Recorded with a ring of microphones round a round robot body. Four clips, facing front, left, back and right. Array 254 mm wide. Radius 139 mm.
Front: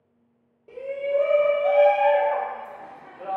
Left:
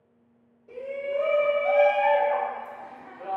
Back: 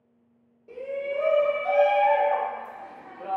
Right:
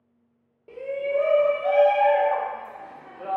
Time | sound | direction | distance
0.7 | a shout | 75° right | 1.3 m